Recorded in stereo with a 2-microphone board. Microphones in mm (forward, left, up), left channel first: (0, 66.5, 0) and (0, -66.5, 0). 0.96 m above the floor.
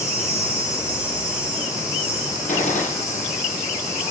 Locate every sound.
0.0 s an insect: 20° left (ahead or behind), 5.5 m
2.5 s a gunshot: 80° left, 5.5 m